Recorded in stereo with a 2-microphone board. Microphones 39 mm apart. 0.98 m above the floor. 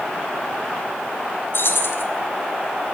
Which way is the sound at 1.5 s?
65° left (ahead or behind).